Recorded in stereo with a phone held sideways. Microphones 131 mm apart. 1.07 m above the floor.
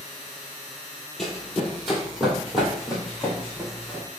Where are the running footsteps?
5° left (ahead or behind), 1.2 m; by 4.0 s 5° right (ahead or behind), 3 m.